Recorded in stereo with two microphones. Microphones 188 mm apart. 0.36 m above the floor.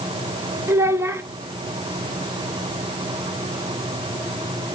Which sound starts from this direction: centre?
A child speaking, at 0.7 s.